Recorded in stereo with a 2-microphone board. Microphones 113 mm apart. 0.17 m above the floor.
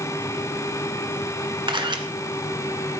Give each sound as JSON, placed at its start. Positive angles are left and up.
{"t": 1.7, "sound": "a camera shutter", "side_deg": -45, "distance_m": 1.7}